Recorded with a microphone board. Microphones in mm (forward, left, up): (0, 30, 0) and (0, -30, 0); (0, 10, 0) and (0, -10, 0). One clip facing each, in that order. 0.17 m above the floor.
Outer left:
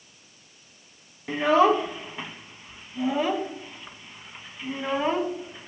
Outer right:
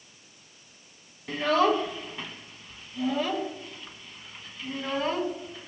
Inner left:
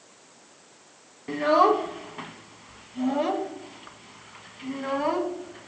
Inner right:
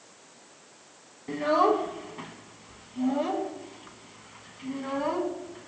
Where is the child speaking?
20° left (ahead or behind), 0.6 m.